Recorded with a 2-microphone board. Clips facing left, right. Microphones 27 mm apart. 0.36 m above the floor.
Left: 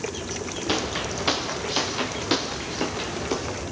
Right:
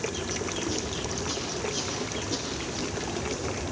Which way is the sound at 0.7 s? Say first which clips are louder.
Left 5 dB; 70° left (ahead or behind).